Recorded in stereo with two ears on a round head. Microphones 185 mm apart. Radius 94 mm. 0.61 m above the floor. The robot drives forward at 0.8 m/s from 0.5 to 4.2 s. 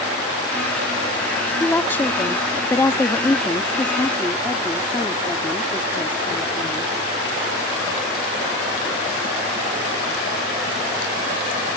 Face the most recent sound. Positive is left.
turn(degrees=10)  # may be behind; listen again after turning